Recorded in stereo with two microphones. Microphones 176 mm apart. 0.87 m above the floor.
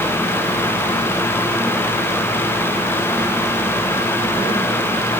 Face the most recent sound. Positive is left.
No sound to turn to.